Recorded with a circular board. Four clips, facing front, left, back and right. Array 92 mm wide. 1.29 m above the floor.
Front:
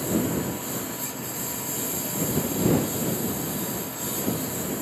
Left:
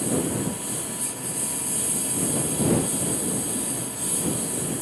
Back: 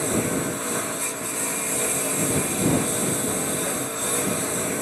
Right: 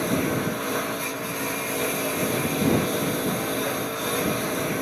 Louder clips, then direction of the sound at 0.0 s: Right 2 dB, back 1 dB; 125° right.